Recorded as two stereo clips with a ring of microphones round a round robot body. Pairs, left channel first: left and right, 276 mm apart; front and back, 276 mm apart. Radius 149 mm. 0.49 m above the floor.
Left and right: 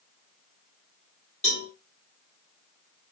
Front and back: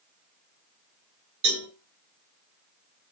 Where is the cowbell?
155° left, 2.5 m.